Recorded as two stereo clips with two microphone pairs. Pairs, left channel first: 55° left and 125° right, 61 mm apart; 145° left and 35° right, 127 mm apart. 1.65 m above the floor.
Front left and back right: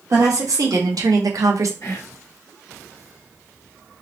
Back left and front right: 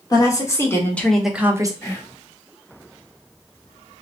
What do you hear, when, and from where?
0.1 s a woman speaking: 155° right, 1.5 m; by 1.7 s 95° right, 0.7 m
1.8 s whispering: 80° left, 1.7 m